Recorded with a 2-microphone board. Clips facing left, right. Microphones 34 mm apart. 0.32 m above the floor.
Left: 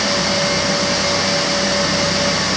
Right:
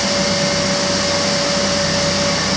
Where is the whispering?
I don't hear whispering.